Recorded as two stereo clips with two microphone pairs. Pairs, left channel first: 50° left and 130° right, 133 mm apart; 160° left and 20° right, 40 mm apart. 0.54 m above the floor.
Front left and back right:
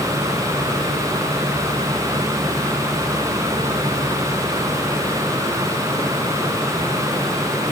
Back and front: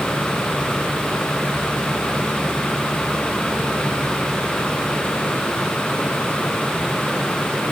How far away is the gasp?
No gasp in this recording.